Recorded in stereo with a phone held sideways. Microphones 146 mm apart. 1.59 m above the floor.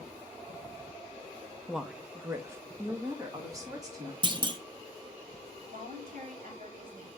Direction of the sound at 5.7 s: 75° right (ahead or behind).